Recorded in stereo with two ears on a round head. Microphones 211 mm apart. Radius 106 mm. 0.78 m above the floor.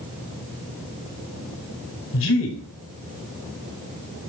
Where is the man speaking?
60° left (ahead or behind), 6 m.